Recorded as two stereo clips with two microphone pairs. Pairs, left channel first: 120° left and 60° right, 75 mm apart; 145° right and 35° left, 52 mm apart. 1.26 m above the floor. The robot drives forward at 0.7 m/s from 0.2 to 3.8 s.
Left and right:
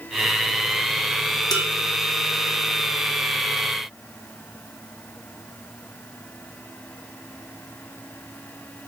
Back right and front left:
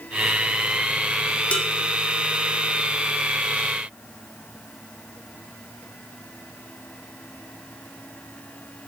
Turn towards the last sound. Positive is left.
turn(degrees=165)